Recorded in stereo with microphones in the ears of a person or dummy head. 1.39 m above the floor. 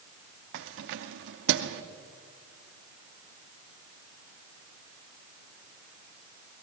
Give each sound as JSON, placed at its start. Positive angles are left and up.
{"t": 0.5, "sound": "keys jangling", "side_deg": -60, "distance_m": 0.8}